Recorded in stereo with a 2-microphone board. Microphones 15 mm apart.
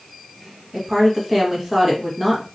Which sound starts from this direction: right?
A woman speaking, at 0.7 s.